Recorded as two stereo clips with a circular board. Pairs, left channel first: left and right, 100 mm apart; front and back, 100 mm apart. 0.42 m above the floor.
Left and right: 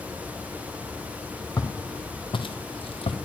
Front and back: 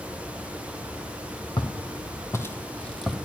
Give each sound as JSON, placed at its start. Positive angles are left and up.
{"t": 1.6, "sound": "footsteps", "azimuth_deg": 35, "distance_m": 1.2}